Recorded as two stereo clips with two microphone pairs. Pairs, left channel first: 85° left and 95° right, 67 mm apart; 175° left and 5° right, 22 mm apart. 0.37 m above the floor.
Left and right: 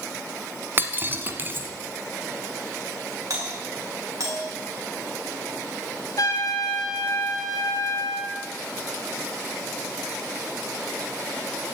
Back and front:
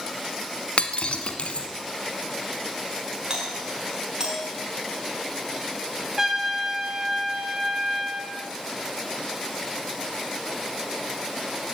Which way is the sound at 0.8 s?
150° right.